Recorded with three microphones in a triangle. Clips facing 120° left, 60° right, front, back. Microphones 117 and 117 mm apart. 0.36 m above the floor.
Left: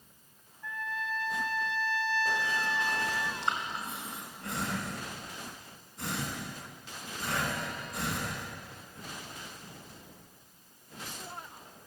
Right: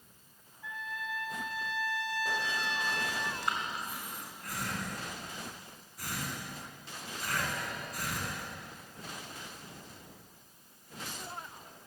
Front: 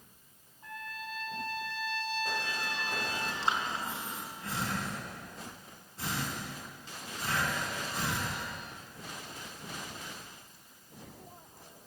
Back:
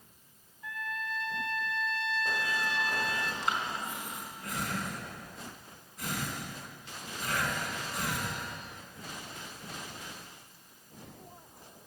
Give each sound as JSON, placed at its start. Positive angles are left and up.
{"t": 0.6, "sound": "a trumpet", "azimuth_deg": 0, "distance_m": 1.8}
{"t": 3.4, "sound": "breathing", "azimuth_deg": 60, "distance_m": 3.5}